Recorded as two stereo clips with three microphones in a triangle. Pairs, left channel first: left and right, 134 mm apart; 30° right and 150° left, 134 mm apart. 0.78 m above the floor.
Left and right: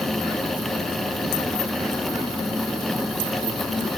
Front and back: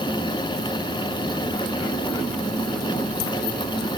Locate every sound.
Only background noise.